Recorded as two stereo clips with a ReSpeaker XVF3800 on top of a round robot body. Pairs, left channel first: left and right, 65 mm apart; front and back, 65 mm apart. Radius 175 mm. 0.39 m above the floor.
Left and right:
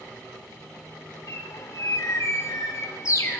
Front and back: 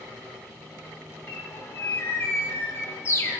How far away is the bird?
About 1.3 m.